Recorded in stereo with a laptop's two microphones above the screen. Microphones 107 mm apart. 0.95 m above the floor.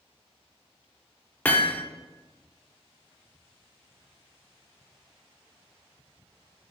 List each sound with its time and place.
1.4 s hammering: 15° left (ahead or behind), 0.7 m